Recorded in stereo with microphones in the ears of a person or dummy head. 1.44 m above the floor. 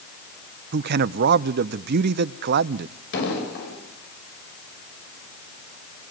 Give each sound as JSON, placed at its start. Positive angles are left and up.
{"t": 0.7, "sound": "a man speaking", "side_deg": -55, "distance_m": 0.8}
{"t": 3.1, "sound": "an explosion", "side_deg": 60, "distance_m": 7.5}